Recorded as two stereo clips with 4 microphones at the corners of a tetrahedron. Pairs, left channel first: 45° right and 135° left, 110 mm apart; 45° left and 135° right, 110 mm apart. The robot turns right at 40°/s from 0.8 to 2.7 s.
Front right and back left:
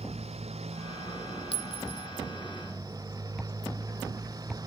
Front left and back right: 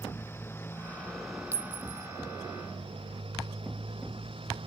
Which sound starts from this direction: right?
A clink, at 1.5 s.